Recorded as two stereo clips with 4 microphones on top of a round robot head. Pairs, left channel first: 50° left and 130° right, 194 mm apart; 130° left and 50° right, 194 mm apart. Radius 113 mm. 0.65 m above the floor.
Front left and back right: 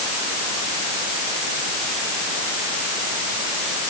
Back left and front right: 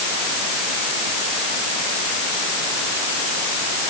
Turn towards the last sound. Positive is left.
No sound to turn to.